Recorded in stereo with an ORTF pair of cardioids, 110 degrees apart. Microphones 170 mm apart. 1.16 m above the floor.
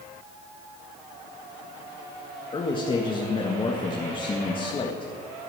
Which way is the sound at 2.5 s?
30° left.